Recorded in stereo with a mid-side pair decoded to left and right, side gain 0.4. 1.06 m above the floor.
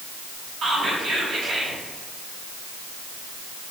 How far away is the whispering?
About 1.6 m.